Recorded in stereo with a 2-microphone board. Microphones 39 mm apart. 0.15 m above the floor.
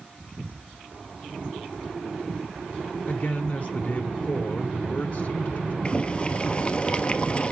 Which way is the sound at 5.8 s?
30° left (ahead or behind).